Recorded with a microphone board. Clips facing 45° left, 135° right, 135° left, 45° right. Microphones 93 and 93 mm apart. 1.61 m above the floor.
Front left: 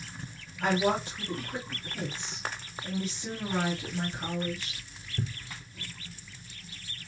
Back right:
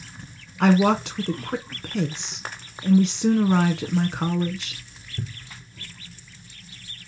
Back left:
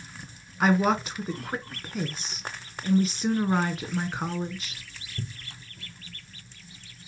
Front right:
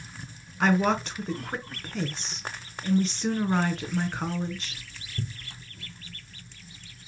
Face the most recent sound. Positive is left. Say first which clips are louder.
# back right 8 dB, back left 1 dB
turn(degrees=-140)